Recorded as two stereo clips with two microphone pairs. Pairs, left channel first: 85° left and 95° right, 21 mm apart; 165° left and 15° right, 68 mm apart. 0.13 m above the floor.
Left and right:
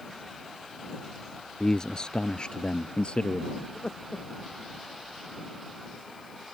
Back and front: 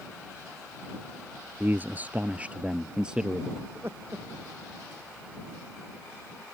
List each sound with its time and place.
1.6 s a man speaking: 35° left; by 3.5 s 65° left
3.6 s laughter: 35° left